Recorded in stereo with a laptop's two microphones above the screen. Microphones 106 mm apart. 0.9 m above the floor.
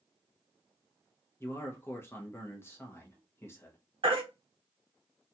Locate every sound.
1.4 s a man speaking: 25° left (ahead or behind), 0.6 m
4.0 s a baby crying: 55° right (ahead or behind), 0.8 m